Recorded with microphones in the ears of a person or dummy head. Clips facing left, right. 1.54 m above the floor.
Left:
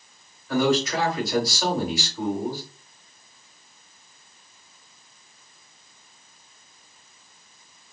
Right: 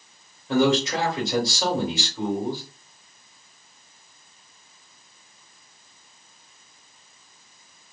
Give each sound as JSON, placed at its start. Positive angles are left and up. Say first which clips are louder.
{"t": 0.5, "sound": "a man speaking", "louder": "right 1 dB", "side_deg": -25, "distance_m": 1.3}